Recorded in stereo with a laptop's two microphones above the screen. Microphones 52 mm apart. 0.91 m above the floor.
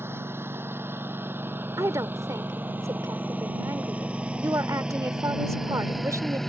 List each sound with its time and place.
0.0 s a lawn mower: 50° right (ahead or behind); by 6.5 s 5° left (ahead or behind)
1.8 s a woman speaking: 80° right